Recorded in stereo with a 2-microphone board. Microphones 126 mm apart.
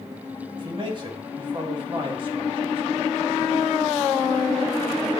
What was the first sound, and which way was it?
A man speaking, 40° right (ahead or behind).